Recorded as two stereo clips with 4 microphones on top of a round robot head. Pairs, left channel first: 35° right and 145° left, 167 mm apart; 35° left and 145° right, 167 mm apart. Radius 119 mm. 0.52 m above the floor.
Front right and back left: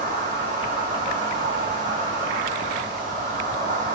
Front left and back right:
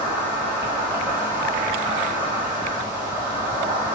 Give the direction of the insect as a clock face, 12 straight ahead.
7 o'clock.